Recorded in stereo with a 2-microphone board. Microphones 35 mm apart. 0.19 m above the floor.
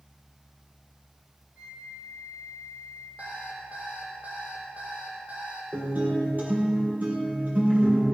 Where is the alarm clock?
45° right (ahead or behind), 4 m.